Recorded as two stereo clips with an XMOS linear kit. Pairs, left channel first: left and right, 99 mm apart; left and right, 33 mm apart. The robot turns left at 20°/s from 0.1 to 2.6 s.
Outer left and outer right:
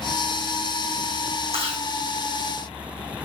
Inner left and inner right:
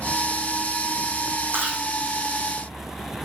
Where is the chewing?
80° right, 3.5 m; by 1.8 s 75° right (ahead or behind), 3.5 m.